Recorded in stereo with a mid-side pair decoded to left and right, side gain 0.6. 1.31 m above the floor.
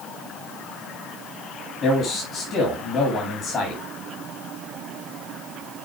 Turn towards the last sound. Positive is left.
turn(degrees=50)